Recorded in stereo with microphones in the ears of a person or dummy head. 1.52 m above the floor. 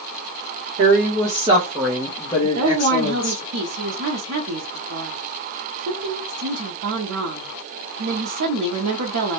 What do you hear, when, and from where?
0.8 s a woman speaking: 50° right (ahead or behind), 0.9 m; by 3.4 s 50° left (ahead or behind), 1.4 m
2.4 s a woman speaking: 70° right (ahead or behind), 0.7 m